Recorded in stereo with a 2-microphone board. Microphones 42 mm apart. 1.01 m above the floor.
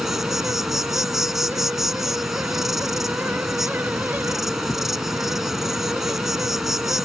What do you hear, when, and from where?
0.0 s an insect: 5° right (ahead or behind)